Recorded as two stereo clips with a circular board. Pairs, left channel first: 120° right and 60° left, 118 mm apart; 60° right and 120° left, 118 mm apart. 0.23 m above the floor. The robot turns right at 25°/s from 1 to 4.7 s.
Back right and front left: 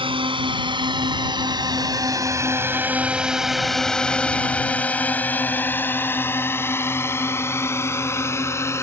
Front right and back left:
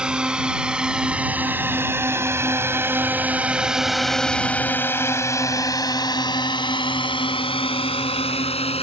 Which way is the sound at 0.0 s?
40° left.